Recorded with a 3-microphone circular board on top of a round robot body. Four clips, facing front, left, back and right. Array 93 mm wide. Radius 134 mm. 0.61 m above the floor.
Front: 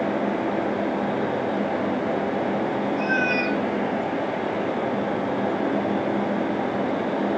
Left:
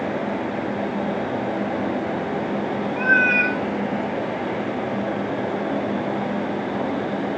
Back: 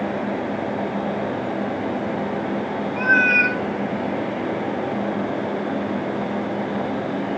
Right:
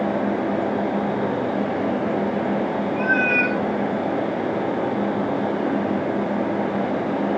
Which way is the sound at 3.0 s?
125° left.